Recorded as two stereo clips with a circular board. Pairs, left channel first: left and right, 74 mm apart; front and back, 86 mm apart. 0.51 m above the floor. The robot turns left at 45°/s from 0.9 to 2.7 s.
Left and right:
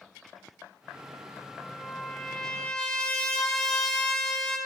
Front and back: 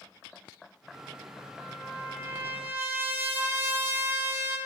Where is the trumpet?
155° right, 0.7 m; by 4.6 s 155° left, 0.7 m.